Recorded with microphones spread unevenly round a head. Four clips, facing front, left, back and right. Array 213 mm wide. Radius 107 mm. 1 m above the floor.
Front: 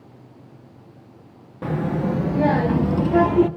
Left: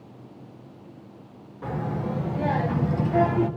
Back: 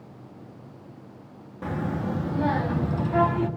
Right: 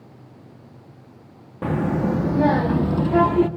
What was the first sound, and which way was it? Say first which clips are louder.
A child speaking: right 7 dB, front 6 dB; 70° right.